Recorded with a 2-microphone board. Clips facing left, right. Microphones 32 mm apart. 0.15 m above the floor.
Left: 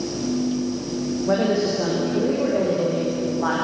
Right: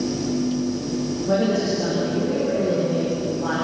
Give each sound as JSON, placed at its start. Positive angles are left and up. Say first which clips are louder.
{"t": 1.3, "sound": "a woman speaking", "louder": "even", "side_deg": 20, "distance_m": 7.5}